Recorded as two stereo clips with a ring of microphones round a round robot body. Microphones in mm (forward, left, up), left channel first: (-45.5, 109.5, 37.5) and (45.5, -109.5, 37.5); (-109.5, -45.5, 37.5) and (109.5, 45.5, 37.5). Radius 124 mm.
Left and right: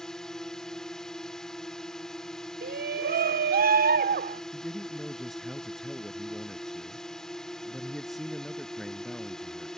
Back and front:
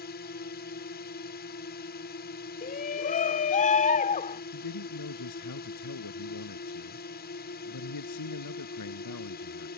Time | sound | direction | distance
0.0 | a drone | 160° right | ?
2.6 | a shout | 110° right | ?
4.5 | a man speaking | 160° right | ?